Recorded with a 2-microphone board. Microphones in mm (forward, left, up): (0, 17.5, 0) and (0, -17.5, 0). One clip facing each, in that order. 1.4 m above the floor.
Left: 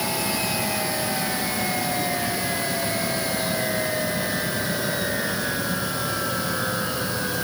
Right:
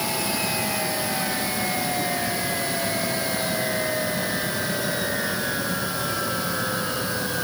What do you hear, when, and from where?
Only background noise.